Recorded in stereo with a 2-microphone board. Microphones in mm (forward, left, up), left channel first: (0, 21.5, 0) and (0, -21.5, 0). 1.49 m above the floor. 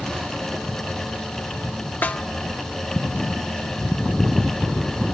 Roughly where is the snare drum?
Left.